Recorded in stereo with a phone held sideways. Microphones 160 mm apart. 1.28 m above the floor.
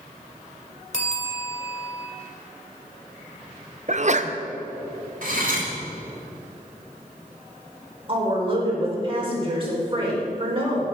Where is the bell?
50° left (ahead or behind), 2 m.